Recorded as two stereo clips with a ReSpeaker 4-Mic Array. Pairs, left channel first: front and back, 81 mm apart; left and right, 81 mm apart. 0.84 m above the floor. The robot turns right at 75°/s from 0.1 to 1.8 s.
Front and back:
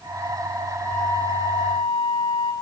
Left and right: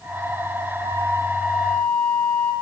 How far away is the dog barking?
I don't hear a dog barking.